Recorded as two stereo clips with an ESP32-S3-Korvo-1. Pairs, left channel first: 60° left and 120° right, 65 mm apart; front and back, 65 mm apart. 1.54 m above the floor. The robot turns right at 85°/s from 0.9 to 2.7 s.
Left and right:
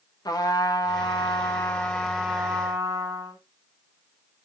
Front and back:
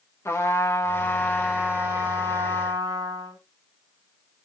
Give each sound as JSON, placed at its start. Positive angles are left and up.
{"t": 0.2, "sound": "a trumpet", "azimuth_deg": 50, "distance_m": 1.9}